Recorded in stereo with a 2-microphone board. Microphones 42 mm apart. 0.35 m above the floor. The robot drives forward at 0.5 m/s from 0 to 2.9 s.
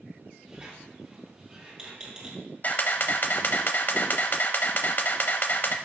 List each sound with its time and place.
0.5 s a squeak: 25° right (ahead or behind), 2.5 m; by 2.4 s 20° right (ahead or behind), 3.5 m
2.6 s a camera shutter: 45° left (ahead or behind), 0.9 m; by 5.8 s 50° left (ahead or behind), 0.8 m